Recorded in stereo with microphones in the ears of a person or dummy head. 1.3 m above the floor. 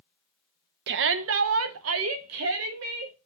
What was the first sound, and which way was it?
A shout, 65° right (ahead or behind).